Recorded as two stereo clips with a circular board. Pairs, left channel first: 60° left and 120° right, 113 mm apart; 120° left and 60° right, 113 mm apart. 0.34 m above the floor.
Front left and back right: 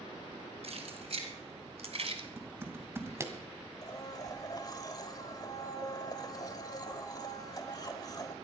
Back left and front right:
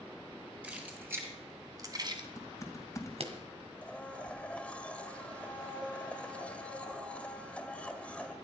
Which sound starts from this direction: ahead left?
A blender, at 3.8 s.